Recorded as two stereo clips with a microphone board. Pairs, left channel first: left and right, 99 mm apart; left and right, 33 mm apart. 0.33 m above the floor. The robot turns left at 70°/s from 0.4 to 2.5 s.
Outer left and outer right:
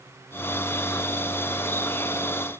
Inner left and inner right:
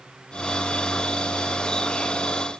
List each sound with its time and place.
Only background noise.